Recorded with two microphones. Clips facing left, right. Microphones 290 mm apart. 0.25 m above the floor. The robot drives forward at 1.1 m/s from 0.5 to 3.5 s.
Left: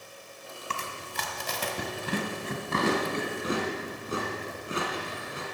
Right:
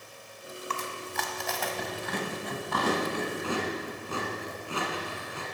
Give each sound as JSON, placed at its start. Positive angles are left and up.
{"t": 0.7, "sound": "chewing", "side_deg": 35, "distance_m": 1.8}